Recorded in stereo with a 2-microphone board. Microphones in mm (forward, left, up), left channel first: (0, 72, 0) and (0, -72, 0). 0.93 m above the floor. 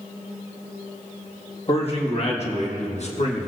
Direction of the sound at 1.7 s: 45° left (ahead or behind).